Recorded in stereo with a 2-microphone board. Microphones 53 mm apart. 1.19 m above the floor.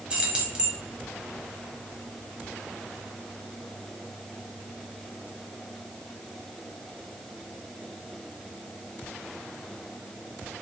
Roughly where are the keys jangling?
Centre.